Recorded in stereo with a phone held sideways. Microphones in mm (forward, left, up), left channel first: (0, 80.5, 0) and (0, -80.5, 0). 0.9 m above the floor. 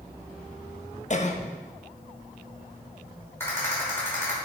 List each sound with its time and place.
1.1 s a cough: 50° left (ahead or behind), 0.8 m
3.4 s a rattle: 15° left (ahead or behind), 3.5 m